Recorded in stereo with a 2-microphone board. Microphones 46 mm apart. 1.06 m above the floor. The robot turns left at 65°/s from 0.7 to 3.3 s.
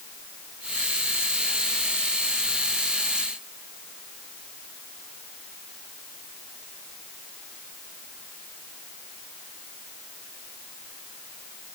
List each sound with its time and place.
Only background noise.